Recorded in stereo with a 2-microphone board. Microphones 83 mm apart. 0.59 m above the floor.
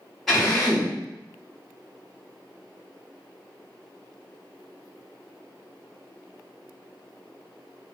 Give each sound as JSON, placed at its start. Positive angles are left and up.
{"t": 0.3, "sound": "a drill", "side_deg": 5, "distance_m": 1.4}